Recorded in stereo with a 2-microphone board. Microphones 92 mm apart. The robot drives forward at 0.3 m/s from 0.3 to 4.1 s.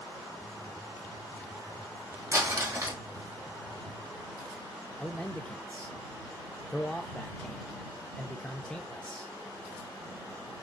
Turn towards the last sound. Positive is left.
turn(degrees=10)  # may be behind; listen again after turning